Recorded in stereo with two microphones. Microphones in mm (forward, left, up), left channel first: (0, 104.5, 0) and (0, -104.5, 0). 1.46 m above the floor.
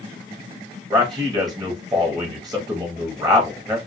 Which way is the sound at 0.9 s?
20° right (ahead or behind).